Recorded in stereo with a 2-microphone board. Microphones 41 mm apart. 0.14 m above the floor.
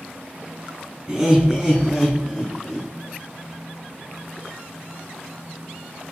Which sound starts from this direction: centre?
Laughter, at 1.1 s.